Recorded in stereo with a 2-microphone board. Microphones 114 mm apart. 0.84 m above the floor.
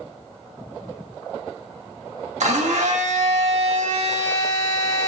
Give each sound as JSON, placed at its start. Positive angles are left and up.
{"t": 2.4, "sound": "a blender", "side_deg": -80, "distance_m": 0.8}